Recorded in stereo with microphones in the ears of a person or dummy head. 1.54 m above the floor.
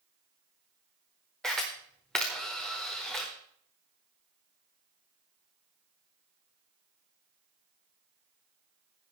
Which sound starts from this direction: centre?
A camera shutter, at 1.4 s.